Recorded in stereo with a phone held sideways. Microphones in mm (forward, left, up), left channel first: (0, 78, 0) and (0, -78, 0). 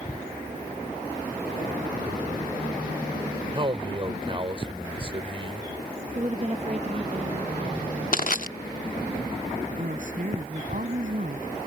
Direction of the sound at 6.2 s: 40° right (ahead or behind).